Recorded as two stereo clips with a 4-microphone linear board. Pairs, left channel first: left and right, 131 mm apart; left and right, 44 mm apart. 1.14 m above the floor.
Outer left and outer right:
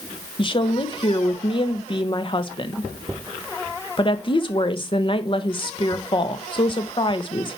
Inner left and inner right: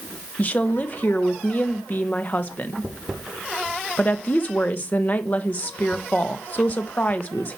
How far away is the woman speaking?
About 1.1 m.